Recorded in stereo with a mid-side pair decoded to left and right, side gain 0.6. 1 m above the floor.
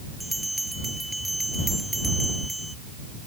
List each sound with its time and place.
0.2 s a bell: 5° right